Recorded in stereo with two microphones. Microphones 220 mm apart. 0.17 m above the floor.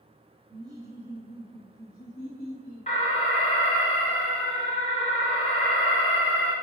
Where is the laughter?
20° right (ahead or behind), 1.2 m; by 2.9 s 35° left (ahead or behind), 1.5 m.